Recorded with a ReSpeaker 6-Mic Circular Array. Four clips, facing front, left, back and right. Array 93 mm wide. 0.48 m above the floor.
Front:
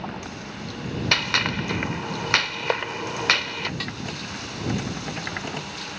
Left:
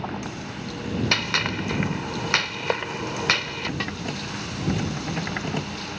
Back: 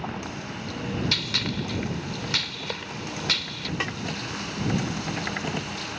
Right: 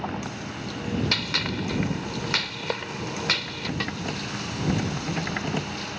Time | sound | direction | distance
1.1 | a gunshot | 30° left | ?
3.8 | a snare drum | 170° left | ?